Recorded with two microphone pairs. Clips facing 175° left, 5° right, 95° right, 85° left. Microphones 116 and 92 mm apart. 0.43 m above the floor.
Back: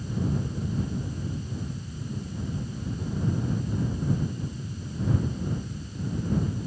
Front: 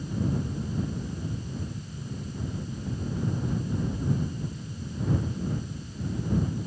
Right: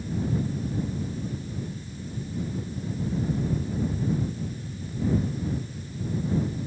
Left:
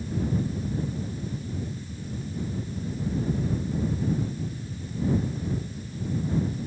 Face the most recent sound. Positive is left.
No sound to turn to.